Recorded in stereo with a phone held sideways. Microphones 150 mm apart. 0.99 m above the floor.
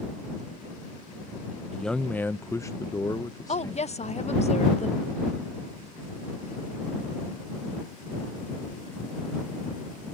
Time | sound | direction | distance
1.7 | a man speaking | centre (ahead or behind) | ?
3.5 | a woman speaking | 50° left (ahead or behind) | ?